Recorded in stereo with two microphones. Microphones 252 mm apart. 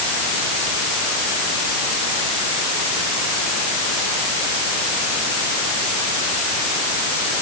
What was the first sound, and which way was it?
Only background noise.